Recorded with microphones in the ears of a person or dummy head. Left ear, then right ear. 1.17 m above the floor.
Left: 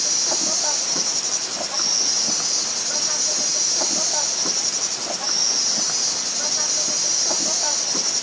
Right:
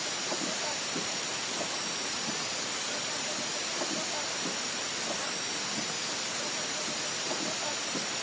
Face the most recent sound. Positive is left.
turn(degrees=85)